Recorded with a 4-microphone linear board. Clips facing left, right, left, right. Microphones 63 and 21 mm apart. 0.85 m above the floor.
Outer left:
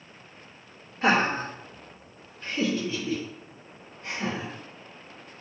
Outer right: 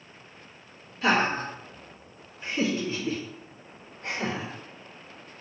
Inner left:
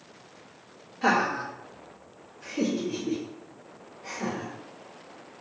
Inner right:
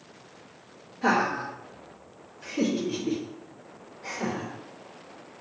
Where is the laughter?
35° left (ahead or behind), 1.0 m; by 4.5 s 65° right (ahead or behind), 1.2 m.